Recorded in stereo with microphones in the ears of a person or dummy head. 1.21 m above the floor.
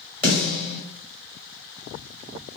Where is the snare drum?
10° left (ahead or behind), 1.9 m.